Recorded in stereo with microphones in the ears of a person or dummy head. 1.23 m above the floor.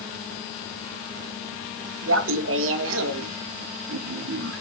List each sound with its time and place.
2.1 s laughter: 65° right (ahead or behind), 1.4 m; by 4.6 s 70° right (ahead or behind), 2.5 m